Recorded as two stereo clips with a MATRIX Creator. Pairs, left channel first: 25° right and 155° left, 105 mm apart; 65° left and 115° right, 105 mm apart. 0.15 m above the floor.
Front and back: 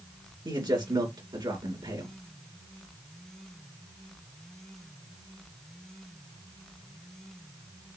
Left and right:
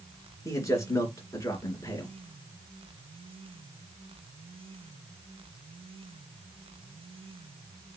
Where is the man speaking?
120° left, 2 m.